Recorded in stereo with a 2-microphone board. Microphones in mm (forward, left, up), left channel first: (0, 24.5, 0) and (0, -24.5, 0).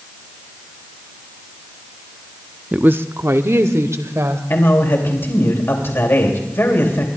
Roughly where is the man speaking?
Left.